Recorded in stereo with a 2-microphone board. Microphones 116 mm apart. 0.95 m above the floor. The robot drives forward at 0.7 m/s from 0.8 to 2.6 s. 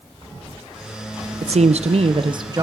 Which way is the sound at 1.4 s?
60° right (ahead or behind).